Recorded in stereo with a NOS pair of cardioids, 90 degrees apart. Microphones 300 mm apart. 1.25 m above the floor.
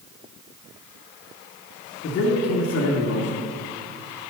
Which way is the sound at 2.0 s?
50° left.